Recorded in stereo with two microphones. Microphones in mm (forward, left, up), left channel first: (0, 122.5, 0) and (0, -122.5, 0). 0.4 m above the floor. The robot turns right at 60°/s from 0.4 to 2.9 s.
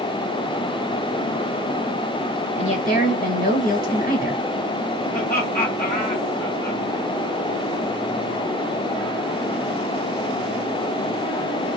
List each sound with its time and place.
2.6 s a woman speaking: 25° left (ahead or behind), 1.5 m; by 4.4 s 35° left (ahead or behind), 1.5 m
5.1 s laughter: 35° left (ahead or behind), 1.8 m